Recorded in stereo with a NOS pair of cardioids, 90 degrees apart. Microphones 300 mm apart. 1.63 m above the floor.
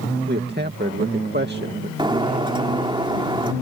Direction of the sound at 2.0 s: 15° right.